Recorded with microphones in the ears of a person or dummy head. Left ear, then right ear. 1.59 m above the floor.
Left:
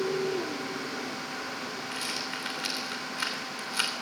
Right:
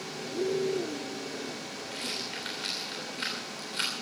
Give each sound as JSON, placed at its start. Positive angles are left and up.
{"t": 1.9, "sound": "a rattle", "side_deg": 35, "distance_m": 3.0}